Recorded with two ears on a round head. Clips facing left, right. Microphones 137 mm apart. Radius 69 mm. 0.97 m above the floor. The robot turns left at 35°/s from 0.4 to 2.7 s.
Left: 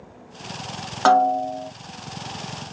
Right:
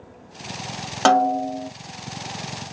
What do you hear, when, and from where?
1.1 s a snare drum: 25° right (ahead or behind), 0.7 m; by 1.7 s 45° right (ahead or behind), 0.7 m